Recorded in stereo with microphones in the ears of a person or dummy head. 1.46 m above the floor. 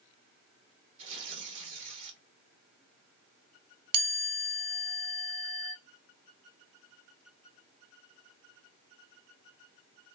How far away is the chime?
About 1.8 m.